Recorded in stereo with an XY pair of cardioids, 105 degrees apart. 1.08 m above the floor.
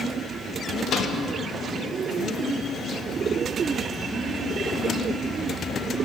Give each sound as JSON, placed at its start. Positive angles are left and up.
{"t": 0.9, "sound": "a microwave", "azimuth_deg": 60, "distance_m": 1.1}